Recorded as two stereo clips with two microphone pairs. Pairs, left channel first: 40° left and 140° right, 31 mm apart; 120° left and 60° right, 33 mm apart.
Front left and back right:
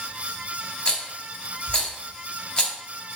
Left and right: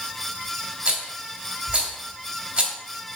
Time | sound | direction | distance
0.8 | a rattle | 5° right | 2 m